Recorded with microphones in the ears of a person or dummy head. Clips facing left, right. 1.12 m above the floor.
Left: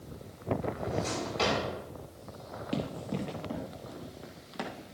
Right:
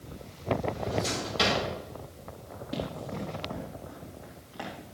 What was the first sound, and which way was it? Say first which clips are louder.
A drawer: right 2 dB; 15° right (ahead or behind).